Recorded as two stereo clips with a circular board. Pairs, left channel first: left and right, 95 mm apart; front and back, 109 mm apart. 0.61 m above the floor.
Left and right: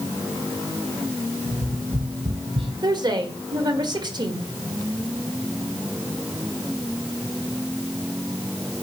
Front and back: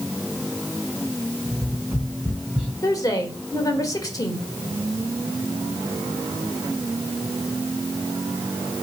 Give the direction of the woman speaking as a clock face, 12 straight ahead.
2 o'clock.